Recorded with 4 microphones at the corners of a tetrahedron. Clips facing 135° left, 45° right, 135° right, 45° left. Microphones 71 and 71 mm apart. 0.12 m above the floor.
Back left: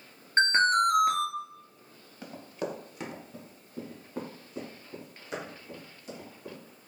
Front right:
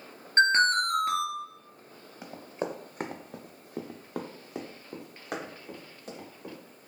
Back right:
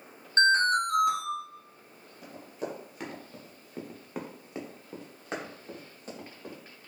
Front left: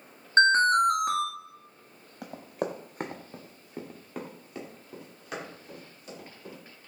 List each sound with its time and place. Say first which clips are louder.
0.4 s an alarm: even, front left 3 dB; 65° left, 0.9 m
2.2 s running footsteps: front right 1 dB, front left 5 dB; 30° left, 1.0 m; by 6.6 s 85° right, 2.5 m